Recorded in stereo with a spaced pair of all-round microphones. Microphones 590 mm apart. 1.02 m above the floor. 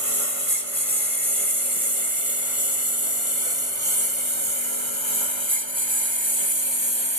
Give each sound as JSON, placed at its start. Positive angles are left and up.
{"t": 0.0, "sound": "a lawn mower", "side_deg": -60}